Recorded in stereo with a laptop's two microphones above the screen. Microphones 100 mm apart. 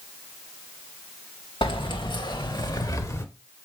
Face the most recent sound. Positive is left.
turn(degrees=30)  # may be behind; listen again after turning